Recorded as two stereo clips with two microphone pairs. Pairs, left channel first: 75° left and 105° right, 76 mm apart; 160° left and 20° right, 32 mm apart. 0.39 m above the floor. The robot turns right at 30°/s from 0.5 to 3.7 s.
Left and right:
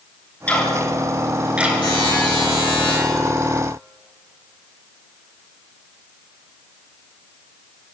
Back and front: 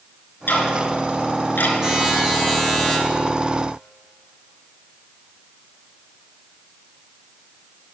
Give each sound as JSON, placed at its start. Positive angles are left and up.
{"t": 0.5, "sound": "ticking", "azimuth_deg": 150, "distance_m": 3.0}
{"t": 1.8, "sound": "a buzzer", "azimuth_deg": 55, "distance_m": 6.0}